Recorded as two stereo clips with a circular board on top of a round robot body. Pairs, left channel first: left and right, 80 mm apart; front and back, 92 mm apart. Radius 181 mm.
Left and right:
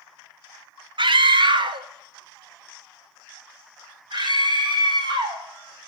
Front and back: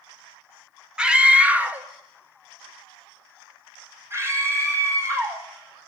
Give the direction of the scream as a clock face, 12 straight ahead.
3 o'clock.